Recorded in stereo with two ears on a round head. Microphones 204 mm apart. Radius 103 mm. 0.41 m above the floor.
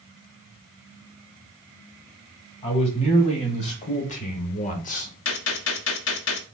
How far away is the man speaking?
About 2 m.